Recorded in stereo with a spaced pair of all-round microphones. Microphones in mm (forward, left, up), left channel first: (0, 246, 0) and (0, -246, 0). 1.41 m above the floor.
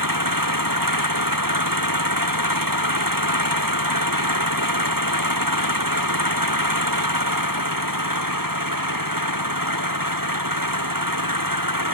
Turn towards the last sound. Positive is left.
turn(degrees=-40)  # may be behind; listen again after turning